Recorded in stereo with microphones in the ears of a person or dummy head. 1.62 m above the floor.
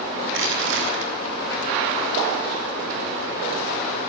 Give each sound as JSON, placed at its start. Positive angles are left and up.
{"t": 0.3, "sound": "crushing", "side_deg": -75, "distance_m": 6.5}